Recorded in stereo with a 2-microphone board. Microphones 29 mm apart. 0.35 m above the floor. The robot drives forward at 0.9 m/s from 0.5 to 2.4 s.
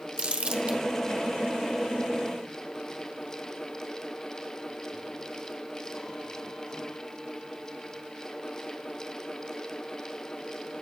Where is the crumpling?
35° right (ahead or behind), 1.0 m.